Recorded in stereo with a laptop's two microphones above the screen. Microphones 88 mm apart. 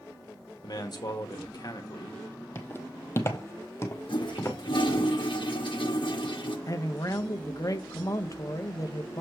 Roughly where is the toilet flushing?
Left.